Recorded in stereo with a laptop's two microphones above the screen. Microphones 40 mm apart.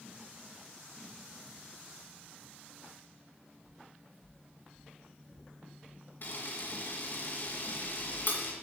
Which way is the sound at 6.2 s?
60° left (ahead or behind).